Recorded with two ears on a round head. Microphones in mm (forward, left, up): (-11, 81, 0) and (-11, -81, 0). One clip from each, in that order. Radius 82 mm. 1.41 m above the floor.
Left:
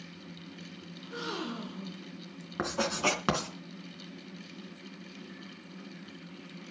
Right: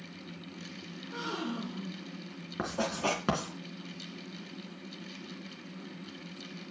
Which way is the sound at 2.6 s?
30° left (ahead or behind).